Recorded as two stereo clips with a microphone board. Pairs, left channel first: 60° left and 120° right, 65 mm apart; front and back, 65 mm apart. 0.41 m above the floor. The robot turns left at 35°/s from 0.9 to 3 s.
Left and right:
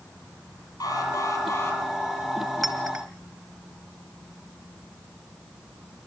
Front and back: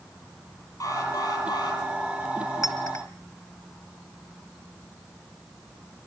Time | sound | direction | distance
0.8 | an alarm | 40° left | 9.5 m
2.6 | a clink | 30° right | 3.5 m